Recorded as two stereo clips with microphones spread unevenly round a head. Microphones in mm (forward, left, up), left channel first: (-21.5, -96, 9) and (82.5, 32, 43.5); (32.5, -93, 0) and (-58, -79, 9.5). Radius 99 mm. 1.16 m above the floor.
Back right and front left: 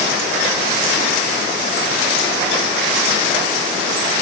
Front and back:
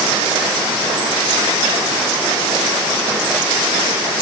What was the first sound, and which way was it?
Only background noise.